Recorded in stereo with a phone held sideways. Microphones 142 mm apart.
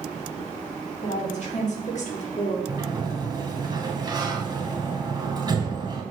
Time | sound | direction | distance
1.0 | a woman speaking | 55° left (ahead or behind) | 3 m
2.7 | a sliding door | 30° right (ahead or behind) | 1.4 m